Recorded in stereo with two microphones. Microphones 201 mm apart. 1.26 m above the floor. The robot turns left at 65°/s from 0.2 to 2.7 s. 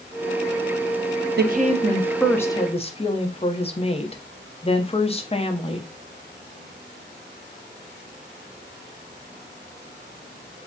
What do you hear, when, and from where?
1.4 s a woman speaking: 125° right, 0.6 m; by 5.9 s 150° left, 0.6 m